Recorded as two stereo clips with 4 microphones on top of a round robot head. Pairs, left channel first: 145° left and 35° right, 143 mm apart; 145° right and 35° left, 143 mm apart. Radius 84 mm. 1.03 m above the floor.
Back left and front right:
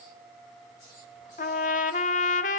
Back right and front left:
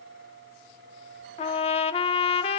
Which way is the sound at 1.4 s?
170° left.